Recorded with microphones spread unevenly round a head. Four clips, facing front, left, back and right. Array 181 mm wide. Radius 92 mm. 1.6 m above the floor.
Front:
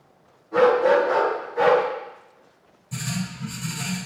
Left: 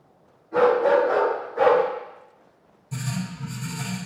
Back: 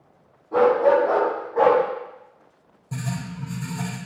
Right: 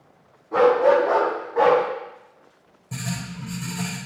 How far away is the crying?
No crying in this recording.